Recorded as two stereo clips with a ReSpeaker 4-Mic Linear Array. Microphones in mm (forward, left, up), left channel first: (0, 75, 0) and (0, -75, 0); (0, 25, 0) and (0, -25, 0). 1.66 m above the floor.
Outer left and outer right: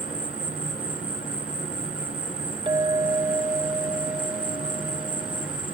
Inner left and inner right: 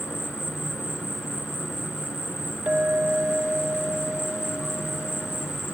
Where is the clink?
35° right (ahead or behind).